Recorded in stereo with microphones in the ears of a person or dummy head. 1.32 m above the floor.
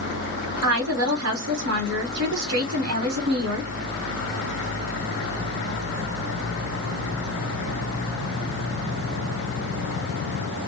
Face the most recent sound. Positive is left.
turn(degrees=-85)